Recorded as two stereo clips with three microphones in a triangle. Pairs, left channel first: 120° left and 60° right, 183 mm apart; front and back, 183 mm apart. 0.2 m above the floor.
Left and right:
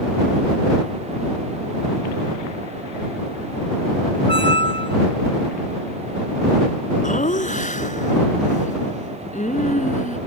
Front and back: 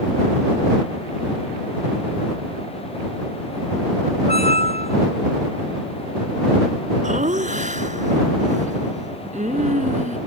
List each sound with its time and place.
4.3 s a squeak: 55° right
7.0 s laughter: 150° left